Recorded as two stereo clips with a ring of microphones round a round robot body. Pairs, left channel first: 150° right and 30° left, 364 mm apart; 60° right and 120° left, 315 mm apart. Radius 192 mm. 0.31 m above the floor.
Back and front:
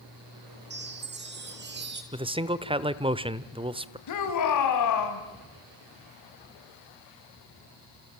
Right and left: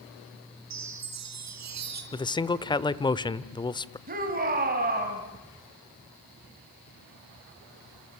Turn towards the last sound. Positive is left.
turn(degrees=180)